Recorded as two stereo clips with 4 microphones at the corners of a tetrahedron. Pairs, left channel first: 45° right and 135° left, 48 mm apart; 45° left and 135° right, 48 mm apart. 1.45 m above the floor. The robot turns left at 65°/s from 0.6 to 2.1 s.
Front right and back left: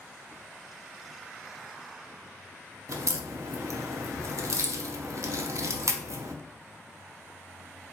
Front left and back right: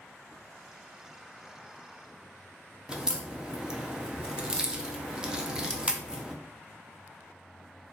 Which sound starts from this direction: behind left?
A crack, at 2.9 s.